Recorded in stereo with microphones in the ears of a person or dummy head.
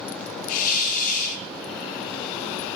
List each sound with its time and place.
0.5 s a hiss: 50° left (ahead or behind), 6 m